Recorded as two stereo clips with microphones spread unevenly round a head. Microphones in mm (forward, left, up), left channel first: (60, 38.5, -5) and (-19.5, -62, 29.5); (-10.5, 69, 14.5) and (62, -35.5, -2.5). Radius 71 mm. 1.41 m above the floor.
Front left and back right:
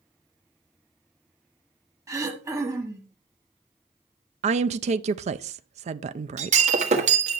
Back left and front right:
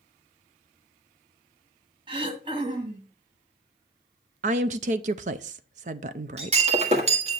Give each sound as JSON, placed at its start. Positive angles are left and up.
{"t": 2.1, "sound": "throat clearing", "azimuth_deg": -100, "distance_m": 1.5}
{"t": 4.4, "sound": "a woman speaking", "azimuth_deg": -85, "distance_m": 0.5}
{"t": 6.4, "sound": "breaking glass", "azimuth_deg": -105, "distance_m": 1.6}